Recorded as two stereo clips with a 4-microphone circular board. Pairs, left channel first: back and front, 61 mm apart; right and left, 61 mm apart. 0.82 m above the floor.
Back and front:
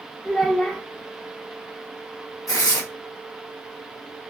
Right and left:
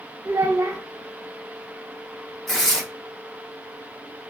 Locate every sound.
0.2 s a child speaking: 110° left, 0.7 m
2.5 s tearing paper: 175° right, 1.6 m